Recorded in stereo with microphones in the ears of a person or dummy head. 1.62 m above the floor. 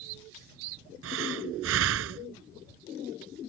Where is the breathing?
70° right (ahead or behind).